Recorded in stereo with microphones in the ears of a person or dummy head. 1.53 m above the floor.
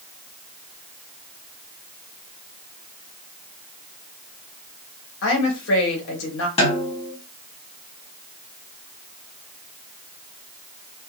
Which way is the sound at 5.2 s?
70° left (ahead or behind).